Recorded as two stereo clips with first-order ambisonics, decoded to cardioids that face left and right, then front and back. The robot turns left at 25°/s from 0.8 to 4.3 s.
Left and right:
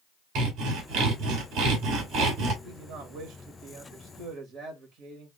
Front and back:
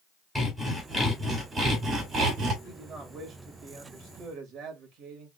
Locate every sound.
0.3 s sawing: 80° right, 2.5 m; by 2.5 s 120° right, 2.5 m
2.6 s a man speaking: 100° right, 1.9 m; by 5.3 s 140° right, 1.9 m